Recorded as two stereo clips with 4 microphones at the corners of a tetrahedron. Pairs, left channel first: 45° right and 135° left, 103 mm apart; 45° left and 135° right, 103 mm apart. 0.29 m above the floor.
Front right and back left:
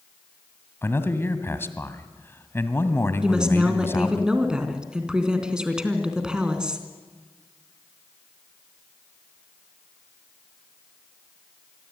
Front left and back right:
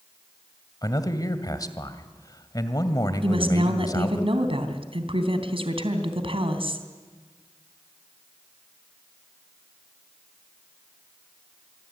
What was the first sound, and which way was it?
A man speaking, 10° left.